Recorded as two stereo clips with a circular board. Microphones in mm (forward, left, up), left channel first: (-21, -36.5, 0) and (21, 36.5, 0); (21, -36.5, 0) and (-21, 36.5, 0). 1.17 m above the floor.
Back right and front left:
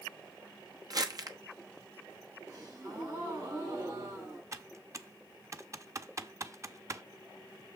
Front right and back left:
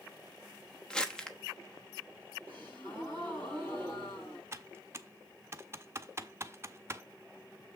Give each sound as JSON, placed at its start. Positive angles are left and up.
{"t": 0.9, "sound": "crumpling", "azimuth_deg": 20, "distance_m": 1.0}
{"t": 2.5, "sound": "a gasp", "azimuth_deg": 5, "distance_m": 6.0}
{"t": 4.5, "sound": "typing on a keyboard", "azimuth_deg": 85, "distance_m": 0.6}